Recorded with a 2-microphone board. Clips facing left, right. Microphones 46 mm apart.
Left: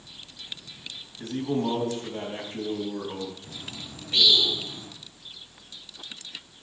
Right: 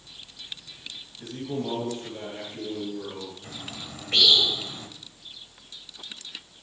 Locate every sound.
1.2 s a man speaking: 50° left (ahead or behind), 3.5 m
3.4 s a bird: 60° right (ahead or behind), 2.0 m